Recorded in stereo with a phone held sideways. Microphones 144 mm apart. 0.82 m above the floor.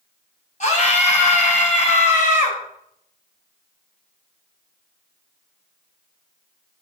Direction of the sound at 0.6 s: 55° left (ahead or behind).